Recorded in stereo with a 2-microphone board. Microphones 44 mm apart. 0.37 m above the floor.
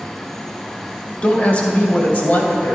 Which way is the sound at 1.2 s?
30° left (ahead or behind).